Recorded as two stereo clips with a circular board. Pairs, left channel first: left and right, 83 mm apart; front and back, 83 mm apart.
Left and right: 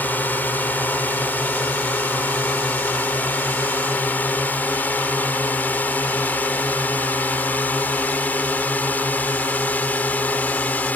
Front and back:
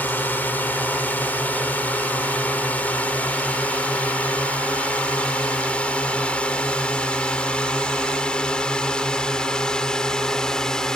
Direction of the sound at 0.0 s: 45° left.